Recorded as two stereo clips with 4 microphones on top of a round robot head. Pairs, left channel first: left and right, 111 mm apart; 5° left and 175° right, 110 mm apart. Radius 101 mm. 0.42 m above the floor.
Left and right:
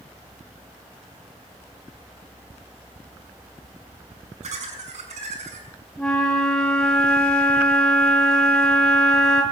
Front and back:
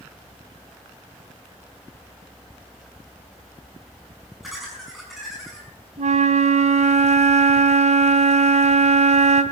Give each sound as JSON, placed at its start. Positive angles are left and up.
{"t": 4.4, "sound": "laughter", "azimuth_deg": -85, "distance_m": 5.5}
{"t": 6.0, "sound": "a flute", "azimuth_deg": 175, "distance_m": 2.5}